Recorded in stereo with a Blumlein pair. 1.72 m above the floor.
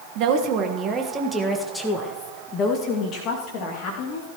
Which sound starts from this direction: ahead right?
A woman speaking, at 0.1 s.